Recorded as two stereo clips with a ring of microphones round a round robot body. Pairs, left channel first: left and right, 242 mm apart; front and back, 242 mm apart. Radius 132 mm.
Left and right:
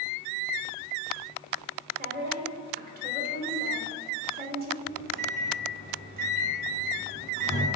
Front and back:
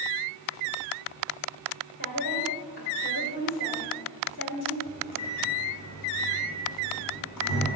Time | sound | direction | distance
2.0 | a woman speaking | 40° right | 2.5 m
4.8 | a microwave | 35° right | 3 m